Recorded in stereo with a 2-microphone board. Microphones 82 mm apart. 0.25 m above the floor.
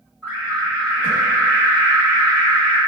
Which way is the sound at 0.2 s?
20° left (ahead or behind).